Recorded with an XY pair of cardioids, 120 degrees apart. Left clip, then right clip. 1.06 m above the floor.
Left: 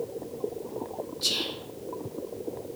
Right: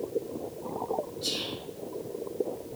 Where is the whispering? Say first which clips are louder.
Left 4 dB; 65° left, 0.8 m.